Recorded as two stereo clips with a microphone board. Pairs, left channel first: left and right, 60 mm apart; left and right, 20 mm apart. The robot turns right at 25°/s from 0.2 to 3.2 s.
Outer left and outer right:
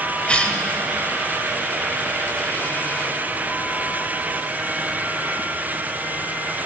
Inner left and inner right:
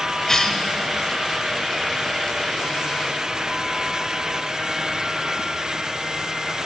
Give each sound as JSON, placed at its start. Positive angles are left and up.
{"t": 0.3, "sound": "a cough", "side_deg": 20, "distance_m": 0.9}